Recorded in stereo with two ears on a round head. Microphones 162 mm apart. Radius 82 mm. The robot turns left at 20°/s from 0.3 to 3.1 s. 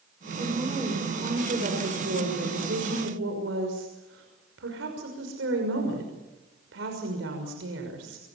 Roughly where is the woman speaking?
Ahead.